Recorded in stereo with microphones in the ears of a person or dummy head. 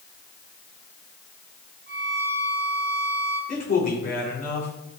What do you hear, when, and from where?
1.9 s a violin: 45° right (ahead or behind), 2.5 m
3.5 s a man speaking: 35° left (ahead or behind), 2.5 m